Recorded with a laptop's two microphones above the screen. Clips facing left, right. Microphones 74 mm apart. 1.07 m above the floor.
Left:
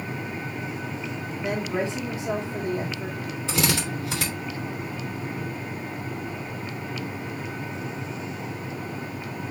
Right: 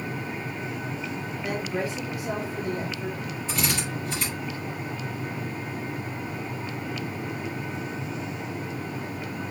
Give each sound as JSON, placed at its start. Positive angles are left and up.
{"t": 1.4, "sound": "a woman speaking", "side_deg": 20, "distance_m": 0.9}
{"t": 3.5, "sound": "a drill", "side_deg": 75, "distance_m": 3.0}